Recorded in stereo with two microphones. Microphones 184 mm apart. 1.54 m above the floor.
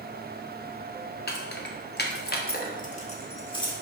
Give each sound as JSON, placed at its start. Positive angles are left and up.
{"t": 1.3, "sound": "keys jangling", "side_deg": 60, "distance_m": 1.1}